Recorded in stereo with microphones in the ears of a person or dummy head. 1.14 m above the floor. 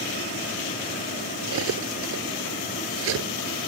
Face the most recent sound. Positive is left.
turn(degrees=-90)